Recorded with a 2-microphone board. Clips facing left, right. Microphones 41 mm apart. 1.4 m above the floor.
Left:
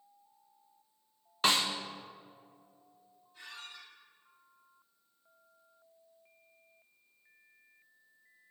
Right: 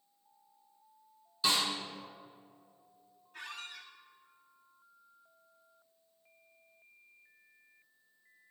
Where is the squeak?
55° right (ahead or behind), 1.1 m.